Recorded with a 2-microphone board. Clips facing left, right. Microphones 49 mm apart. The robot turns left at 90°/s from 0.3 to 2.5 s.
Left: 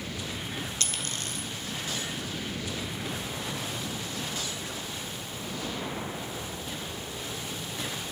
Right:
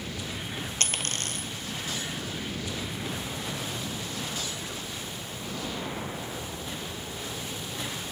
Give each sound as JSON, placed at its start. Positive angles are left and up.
{"t": 0.8, "sound": "a dropped coin", "side_deg": -45, "distance_m": 1.7}